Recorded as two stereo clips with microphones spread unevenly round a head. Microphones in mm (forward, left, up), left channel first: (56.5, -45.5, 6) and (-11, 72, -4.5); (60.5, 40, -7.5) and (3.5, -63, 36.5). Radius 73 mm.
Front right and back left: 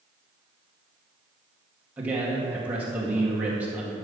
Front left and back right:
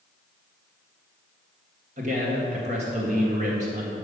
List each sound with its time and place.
2.0 s a man speaking: 160° right, 1.9 m